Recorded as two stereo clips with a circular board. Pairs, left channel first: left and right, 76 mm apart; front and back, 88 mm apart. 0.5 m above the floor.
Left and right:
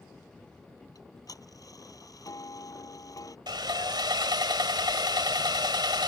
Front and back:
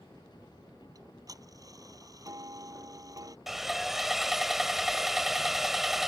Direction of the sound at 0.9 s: 130° left.